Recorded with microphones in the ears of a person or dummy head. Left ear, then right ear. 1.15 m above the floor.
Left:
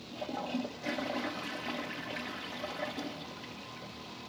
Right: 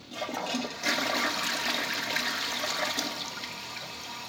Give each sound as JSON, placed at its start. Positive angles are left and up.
{"t": 0.1, "sound": "a toilet flushing", "side_deg": -55}